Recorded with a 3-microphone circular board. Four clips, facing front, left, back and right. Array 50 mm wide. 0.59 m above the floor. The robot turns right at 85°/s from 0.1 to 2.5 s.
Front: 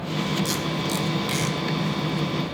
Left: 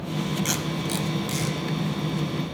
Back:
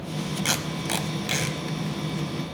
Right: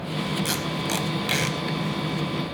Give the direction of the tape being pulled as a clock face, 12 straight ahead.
6 o'clock.